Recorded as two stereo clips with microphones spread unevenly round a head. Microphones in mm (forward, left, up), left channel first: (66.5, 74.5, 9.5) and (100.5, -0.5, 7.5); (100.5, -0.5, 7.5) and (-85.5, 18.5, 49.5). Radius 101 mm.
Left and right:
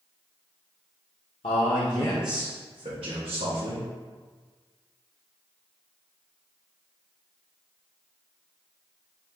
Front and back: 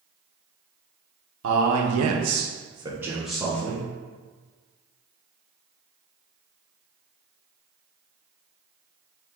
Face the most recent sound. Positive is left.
turn(degrees=-85)